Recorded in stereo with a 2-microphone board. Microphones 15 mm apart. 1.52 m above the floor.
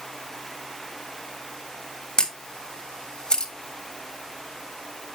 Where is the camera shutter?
60° left (ahead or behind), 2.0 m.